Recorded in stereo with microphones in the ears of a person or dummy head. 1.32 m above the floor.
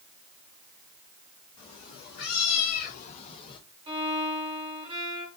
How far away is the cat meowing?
About 1.0 m.